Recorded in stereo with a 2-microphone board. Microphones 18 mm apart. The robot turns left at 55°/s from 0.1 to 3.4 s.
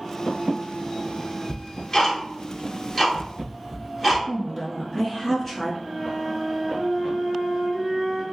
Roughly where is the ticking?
Left.